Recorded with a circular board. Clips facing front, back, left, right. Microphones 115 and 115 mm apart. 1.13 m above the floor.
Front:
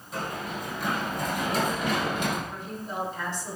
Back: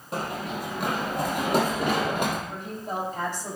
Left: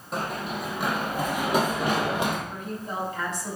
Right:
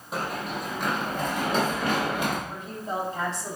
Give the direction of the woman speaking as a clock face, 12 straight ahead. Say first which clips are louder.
Back 3 dB, right 1 dB; 5 o'clock.